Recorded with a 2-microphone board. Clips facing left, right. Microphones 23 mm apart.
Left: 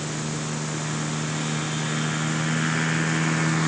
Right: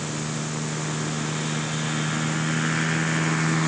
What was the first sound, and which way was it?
Only background noise.